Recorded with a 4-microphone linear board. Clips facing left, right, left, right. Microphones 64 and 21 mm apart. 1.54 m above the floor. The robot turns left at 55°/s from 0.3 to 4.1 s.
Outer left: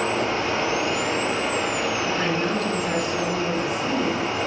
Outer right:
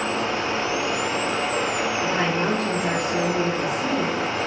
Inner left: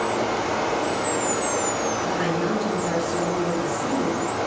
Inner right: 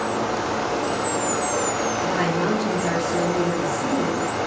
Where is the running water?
75° left, 1.9 m; by 4.5 s 135° right, 1.9 m.